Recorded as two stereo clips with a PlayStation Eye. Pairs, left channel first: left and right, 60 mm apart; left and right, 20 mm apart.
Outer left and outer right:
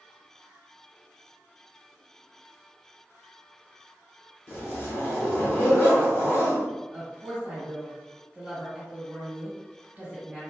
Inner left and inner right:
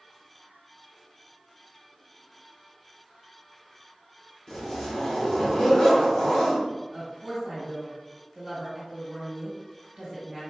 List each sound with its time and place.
4.5 s a zipper: 35° left (ahead or behind), 1.6 m
6.9 s a woman speaking: 20° right (ahead or behind), 1.6 m